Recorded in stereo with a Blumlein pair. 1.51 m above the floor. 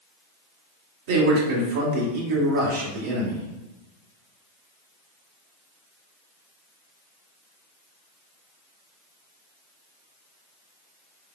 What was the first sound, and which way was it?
A man speaking, 50° right.